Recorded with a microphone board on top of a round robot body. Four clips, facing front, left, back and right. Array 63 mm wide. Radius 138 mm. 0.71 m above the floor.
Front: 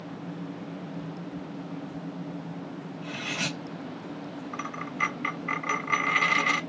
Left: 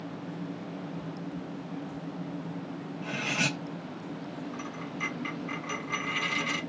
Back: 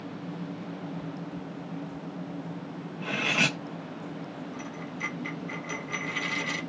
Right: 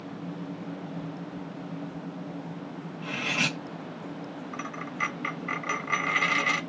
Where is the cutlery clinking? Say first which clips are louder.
Right 2 dB, back 7 dB; 170° right, 1.0 m.